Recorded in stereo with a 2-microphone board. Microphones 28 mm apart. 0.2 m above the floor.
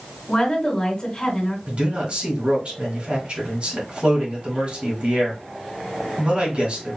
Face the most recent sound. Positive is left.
turn(degrees=-45)  # may be behind; listen again after turning